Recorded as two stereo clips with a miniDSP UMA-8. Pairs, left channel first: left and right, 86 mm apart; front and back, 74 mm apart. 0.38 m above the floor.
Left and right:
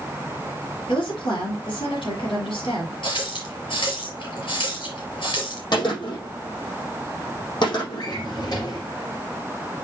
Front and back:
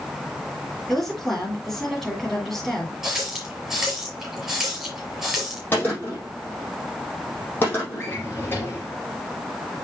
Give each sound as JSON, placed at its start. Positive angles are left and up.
{"t": 0.9, "sound": "a woman speaking", "azimuth_deg": 85, "distance_m": 6.5}
{"t": 3.0, "sound": "a running tap", "azimuth_deg": 95, "distance_m": 5.0}
{"t": 5.7, "sound": "a gunshot", "azimuth_deg": 60, "distance_m": 6.5}
{"t": 8.0, "sound": "a drawer", "azimuth_deg": 55, "distance_m": 4.0}